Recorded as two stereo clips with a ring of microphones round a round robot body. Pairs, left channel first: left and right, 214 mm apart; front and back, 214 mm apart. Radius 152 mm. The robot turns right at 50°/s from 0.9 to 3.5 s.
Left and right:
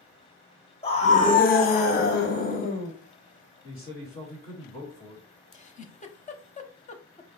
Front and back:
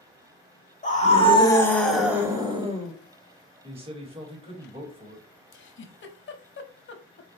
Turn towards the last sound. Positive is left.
turn(degrees=30)